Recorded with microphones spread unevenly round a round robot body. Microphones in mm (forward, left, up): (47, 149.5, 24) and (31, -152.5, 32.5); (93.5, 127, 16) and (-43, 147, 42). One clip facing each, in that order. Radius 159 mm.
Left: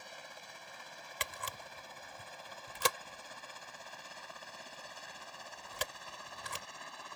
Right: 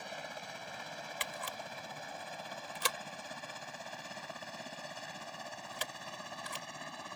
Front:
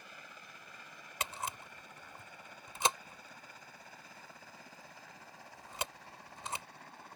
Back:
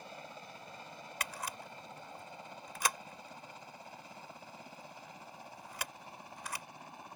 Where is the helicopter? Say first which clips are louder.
Right 7 dB, back 7 dB; 115° right; by 7.2 s 105° right.